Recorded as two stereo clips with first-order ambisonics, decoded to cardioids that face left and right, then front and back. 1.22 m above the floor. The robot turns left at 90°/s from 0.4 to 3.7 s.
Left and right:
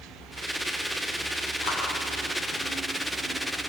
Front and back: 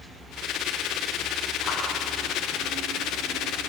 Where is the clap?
80° left, 8.5 m; by 1.8 s 65° left, 8.5 m.